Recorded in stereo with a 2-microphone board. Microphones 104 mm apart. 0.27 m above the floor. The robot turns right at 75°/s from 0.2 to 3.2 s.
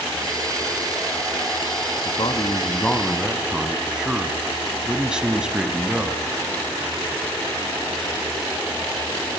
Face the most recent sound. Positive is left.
turn(degrees=-170)